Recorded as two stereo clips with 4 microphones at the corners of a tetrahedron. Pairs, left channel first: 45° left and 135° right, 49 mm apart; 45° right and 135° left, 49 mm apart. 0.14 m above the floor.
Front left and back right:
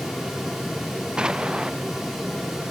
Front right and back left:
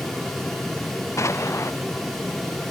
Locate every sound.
1.2 s an explosion: 60° right